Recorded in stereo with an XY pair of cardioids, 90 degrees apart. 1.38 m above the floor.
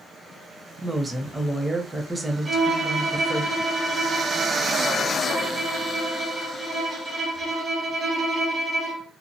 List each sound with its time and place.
0.8 s a woman speaking: 20° right, 0.7 m
2.5 s a violin: 25° right, 0.9 m